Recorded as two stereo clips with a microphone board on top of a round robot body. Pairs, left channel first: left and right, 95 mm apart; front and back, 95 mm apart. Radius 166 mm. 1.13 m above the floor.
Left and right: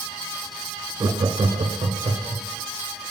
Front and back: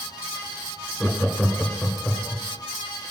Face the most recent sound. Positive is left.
turn(degrees=-95)